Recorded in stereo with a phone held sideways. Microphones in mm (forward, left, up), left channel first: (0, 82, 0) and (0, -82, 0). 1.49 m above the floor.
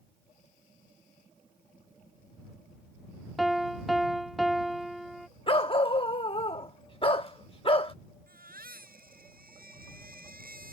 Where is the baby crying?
70° right (ahead or behind).